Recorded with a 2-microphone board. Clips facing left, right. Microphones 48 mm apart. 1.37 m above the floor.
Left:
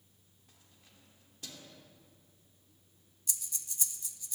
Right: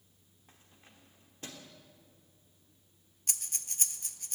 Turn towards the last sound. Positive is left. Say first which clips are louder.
# right 3 dB
turn(degrees=-55)  # may be behind; listen again after turning